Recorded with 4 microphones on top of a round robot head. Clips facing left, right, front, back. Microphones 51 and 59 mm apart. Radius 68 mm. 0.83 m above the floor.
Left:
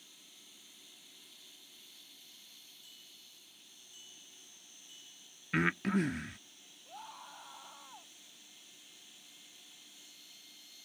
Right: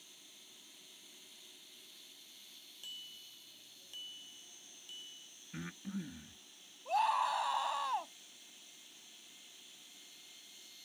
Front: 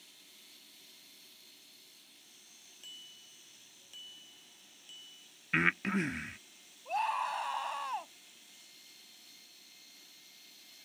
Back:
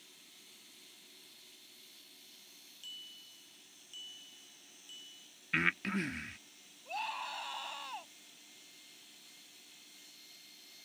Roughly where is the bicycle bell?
Ahead right.